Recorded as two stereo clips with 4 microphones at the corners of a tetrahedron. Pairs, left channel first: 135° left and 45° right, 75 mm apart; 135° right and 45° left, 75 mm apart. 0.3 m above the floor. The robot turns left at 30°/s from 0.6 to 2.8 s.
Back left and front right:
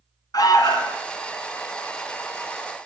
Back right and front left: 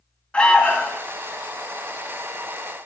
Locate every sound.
0.3 s an alarm: 150° left, 1.6 m; by 1.0 s 140° left, 1.6 m